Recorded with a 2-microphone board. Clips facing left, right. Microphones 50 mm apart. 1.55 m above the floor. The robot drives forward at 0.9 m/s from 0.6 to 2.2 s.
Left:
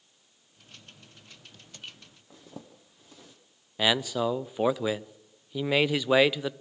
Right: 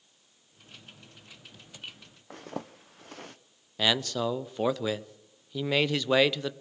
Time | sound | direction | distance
2.3 | a zipper | 65° right (ahead or behind) | 0.7 m
3.8 | a man speaking | 10° left (ahead or behind) | 0.5 m